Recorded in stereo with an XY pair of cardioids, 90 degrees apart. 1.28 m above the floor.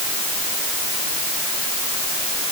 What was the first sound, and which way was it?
Only background noise.